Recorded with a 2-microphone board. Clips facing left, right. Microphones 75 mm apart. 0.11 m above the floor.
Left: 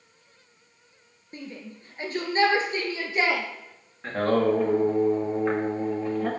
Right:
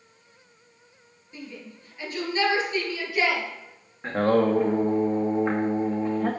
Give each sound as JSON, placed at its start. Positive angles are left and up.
{"t": 1.3, "sound": "a shout", "side_deg": 45, "distance_m": 1.6}
{"t": 4.0, "sound": "singing", "side_deg": -15, "distance_m": 1.4}